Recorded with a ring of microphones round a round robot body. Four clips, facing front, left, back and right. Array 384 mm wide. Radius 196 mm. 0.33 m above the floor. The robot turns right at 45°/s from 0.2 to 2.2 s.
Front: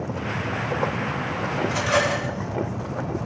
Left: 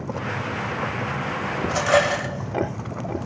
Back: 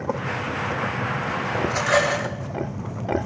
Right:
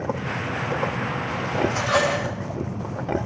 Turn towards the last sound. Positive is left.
turn(degrees=120)